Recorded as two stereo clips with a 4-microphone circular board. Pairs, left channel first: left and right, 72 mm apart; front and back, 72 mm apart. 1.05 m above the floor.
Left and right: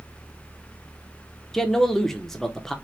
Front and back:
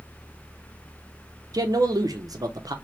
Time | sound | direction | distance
1.5 | a man speaking | 175° left | 0.7 m